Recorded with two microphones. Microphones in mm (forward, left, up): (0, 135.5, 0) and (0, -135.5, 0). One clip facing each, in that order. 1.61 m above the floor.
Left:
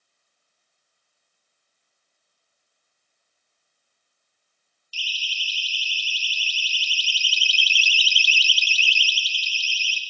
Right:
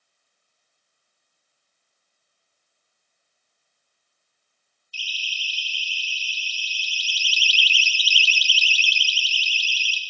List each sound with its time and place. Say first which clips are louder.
4.9 s a siren: left 1 dB; 80° left, 5 m; by 10.0 s 45° right (ahead or behind), 3 m